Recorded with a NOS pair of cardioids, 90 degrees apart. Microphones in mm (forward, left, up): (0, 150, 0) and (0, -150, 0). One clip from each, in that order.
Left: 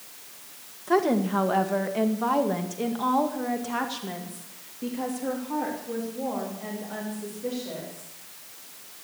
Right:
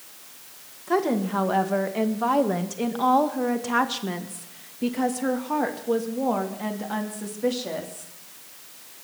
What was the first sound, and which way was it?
A woman speaking, 5° left.